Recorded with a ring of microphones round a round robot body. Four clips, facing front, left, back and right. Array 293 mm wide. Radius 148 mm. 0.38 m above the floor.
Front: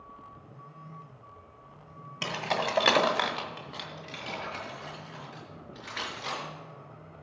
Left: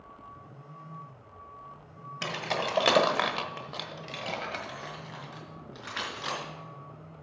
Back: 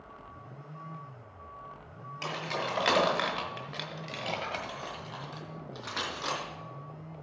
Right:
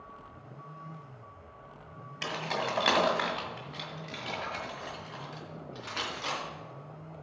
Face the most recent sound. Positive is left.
turn(degrees=165)